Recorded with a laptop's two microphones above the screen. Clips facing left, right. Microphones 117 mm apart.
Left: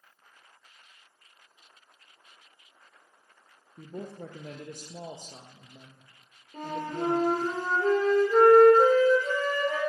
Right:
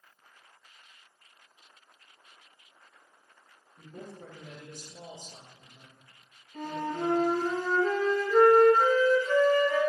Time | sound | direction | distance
3.8 | a man speaking | 55° left (ahead or behind) | 0.6 m
6.5 | a flute | 45° left (ahead or behind) | 2 m